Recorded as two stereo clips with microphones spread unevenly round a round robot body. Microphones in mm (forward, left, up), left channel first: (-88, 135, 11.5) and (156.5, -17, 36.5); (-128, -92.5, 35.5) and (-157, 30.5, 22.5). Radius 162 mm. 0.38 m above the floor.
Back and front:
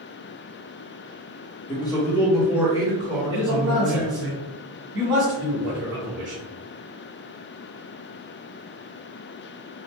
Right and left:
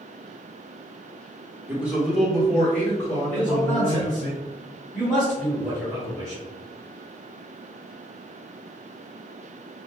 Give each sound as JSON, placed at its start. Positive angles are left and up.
{"t": 1.7, "sound": "a man speaking", "azimuth_deg": 135, "distance_m": 1.4}
{"t": 3.3, "sound": "a man speaking", "azimuth_deg": -5, "distance_m": 1.7}